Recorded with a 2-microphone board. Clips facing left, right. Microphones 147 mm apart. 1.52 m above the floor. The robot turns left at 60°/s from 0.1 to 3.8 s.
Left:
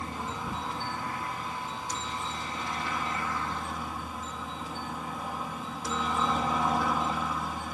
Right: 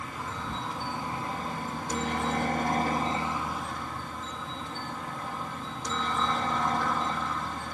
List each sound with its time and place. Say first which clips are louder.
0.0 s a helicopter: left 1 dB; 35° left; by 7.7 s 175° left